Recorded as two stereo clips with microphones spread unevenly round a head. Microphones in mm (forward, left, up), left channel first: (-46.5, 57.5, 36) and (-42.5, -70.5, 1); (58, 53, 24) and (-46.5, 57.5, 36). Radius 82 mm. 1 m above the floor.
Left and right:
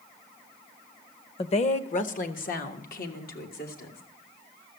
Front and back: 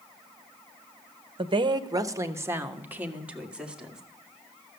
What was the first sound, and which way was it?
A woman speaking, 140° left.